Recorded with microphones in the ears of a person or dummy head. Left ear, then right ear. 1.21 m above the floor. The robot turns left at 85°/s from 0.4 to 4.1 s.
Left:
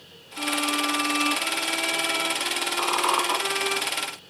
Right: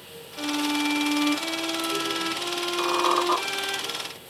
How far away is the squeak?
About 2.5 m.